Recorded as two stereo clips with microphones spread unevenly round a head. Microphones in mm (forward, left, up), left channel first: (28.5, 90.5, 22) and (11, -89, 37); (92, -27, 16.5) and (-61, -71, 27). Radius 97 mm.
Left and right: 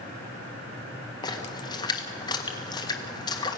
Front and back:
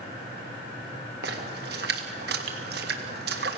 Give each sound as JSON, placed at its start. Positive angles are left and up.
{"t": 1.2, "sound": "a splash", "azimuth_deg": 155, "distance_m": 1.7}